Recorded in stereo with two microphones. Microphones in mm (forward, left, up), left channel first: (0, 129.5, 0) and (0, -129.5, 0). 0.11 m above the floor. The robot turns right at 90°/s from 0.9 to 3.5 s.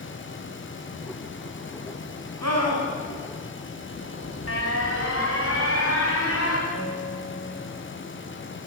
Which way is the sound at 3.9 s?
60° left (ahead or behind).